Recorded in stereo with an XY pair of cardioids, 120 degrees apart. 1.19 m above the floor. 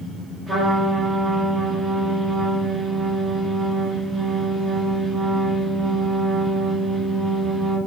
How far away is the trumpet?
About 1.8 m.